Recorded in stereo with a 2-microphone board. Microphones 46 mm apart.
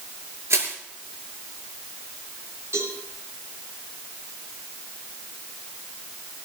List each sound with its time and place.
0.5 s crushing: 75° right (ahead or behind), 5.5 m
2.7 s a cowbell: 65° right (ahead or behind), 7 m